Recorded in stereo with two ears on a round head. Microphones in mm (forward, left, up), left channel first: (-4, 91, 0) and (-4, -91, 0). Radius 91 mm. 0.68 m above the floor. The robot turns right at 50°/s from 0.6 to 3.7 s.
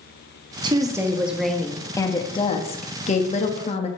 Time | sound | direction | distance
0.6 | a woman speaking | 40° right | 1.0 m